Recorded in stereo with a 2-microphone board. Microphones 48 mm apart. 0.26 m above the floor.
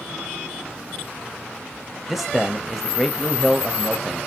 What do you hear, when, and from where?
2.1 s a man speaking: 5° right (ahead or behind), 0.9 m